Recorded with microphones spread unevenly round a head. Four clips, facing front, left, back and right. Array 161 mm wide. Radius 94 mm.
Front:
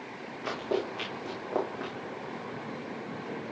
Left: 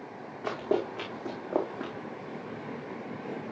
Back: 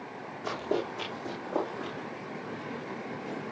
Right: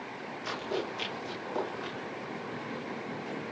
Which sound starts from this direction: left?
Running footsteps, at 0.4 s.